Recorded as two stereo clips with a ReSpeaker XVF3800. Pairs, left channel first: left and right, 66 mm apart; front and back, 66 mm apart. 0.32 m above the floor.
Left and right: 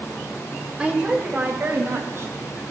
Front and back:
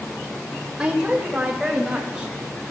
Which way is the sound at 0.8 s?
125° right.